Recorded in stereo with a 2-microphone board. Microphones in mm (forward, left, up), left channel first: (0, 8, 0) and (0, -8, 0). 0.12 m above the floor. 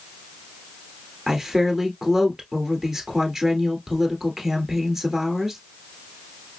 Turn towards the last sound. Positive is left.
turn(degrees=-20)  # may be behind; listen again after turning